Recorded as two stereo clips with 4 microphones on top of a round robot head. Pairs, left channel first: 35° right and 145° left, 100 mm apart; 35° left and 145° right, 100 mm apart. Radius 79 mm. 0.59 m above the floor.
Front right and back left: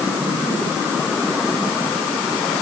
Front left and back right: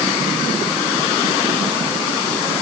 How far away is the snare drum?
I don't hear a snare drum.